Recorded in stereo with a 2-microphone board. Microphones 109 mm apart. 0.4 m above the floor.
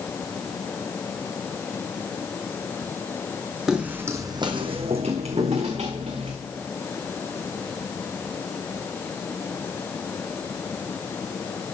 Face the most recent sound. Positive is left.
turn(degrees=-75)  # may be behind; listen again after turning